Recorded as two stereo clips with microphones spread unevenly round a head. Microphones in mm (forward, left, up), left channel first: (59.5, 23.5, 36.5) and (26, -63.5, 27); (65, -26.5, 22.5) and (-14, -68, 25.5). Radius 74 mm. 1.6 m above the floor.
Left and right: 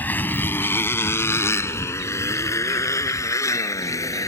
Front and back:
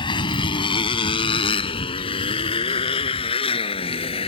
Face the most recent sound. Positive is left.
turn(degrees=15)